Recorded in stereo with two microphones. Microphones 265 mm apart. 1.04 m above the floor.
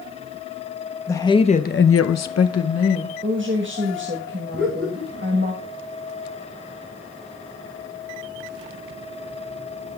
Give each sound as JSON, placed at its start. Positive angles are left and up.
{"t": 1.1, "sound": "a woman speaking", "side_deg": 10, "distance_m": 1.1}
{"t": 3.2, "sound": "a woman speaking", "side_deg": -45, "distance_m": 1.1}
{"t": 4.5, "sound": "laughter", "side_deg": -45, "distance_m": 8.0}